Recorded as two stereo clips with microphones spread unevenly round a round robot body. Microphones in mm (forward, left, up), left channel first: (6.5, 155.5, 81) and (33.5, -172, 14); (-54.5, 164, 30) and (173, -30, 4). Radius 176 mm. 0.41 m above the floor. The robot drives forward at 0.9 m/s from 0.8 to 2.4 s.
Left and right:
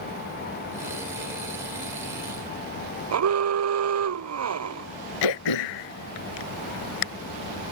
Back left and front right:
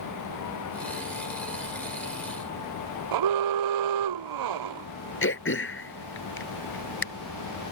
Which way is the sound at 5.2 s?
90° left.